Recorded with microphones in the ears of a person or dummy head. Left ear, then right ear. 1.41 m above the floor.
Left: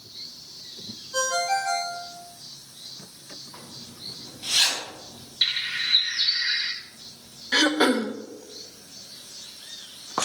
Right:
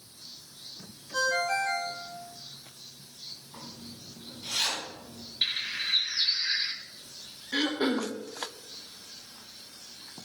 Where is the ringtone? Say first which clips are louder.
Left 3 dB; 25° left (ahead or behind), 3 m.